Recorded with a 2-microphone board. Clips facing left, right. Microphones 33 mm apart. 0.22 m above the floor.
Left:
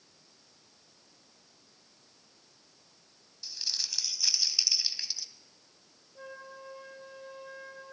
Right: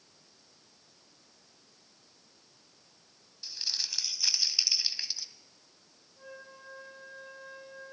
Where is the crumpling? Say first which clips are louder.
Right 1 dB; 15° right (ahead or behind), 1.0 m.